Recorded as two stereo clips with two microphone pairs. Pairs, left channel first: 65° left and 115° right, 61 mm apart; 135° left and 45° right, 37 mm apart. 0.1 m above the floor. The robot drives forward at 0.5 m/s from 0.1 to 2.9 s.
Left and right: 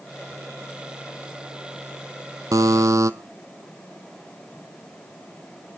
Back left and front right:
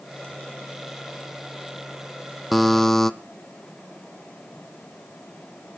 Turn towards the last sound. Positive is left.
turn(degrees=-140)